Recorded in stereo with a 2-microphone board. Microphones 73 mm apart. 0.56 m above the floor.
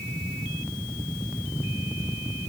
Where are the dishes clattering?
No dishes clattering in this recording.